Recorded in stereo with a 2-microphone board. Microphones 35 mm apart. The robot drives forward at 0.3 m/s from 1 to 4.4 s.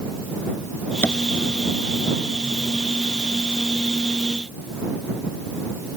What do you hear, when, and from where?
1.0 s tapping: 70° left (ahead or behind)